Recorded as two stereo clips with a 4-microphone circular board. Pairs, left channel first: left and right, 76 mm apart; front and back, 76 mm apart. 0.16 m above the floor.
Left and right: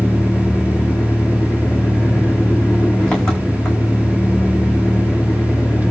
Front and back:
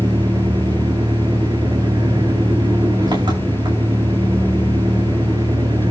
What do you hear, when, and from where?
0.0 s an engine running: 170° left, 6.5 m